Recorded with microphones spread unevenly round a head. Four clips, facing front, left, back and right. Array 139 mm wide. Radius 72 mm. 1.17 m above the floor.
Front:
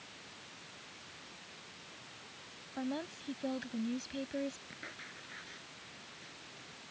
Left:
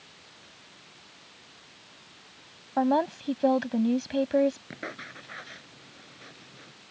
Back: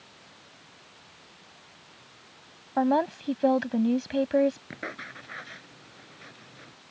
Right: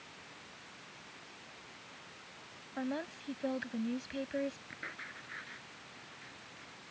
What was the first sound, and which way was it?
A woman speaking, 135° left.